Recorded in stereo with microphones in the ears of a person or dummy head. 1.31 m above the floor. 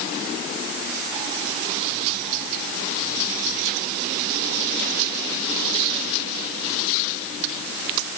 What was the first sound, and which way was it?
Only background noise.